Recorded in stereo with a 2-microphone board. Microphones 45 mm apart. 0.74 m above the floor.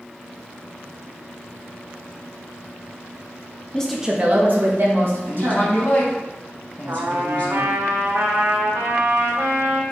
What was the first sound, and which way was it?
A woman speaking, 20° left (ahead or behind).